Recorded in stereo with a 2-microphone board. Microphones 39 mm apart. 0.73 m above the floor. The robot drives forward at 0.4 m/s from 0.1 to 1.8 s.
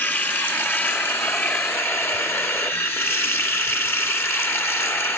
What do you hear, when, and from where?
0.0 s running water: 50° left (ahead or behind), 1.4 m; by 5.2 s 65° left (ahead or behind), 1.2 m